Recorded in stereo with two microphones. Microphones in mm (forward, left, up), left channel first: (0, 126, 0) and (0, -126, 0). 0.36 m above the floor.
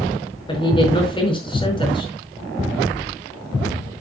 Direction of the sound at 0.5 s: 20° left (ahead or behind).